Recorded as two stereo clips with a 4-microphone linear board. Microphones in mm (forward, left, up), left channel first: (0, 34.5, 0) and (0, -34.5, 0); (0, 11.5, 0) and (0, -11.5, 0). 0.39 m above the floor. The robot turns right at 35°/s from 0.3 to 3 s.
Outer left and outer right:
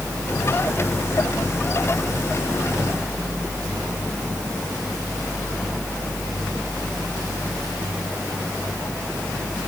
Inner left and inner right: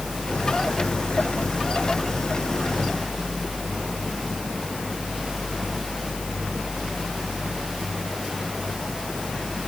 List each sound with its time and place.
Only background noise.